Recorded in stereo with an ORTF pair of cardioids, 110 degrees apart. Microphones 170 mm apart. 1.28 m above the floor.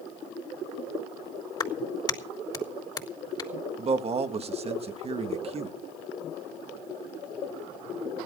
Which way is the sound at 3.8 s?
35° right.